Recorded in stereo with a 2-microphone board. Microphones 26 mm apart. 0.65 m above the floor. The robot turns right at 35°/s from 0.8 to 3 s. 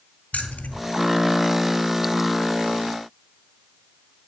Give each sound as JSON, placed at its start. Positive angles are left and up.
{"t": 0.3, "sound": "keys jangling", "side_deg": 75, "distance_m": 1.9}